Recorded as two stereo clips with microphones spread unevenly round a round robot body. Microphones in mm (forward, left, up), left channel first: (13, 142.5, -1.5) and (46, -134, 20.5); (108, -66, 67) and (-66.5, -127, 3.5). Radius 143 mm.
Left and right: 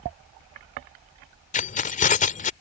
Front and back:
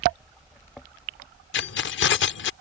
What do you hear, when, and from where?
1.5 s keys jangling: 45° left